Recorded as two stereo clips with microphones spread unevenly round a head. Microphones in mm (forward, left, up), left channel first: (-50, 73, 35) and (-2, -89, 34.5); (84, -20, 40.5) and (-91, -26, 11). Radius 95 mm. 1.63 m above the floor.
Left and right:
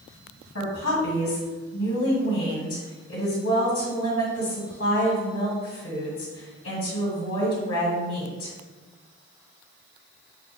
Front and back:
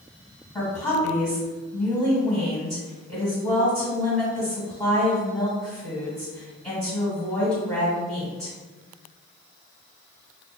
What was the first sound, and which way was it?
A woman speaking, 80° left.